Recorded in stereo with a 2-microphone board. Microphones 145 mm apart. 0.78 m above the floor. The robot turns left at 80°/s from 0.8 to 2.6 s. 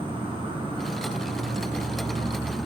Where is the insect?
40° right, 0.9 m; by 2.7 s straight behind, 0.9 m.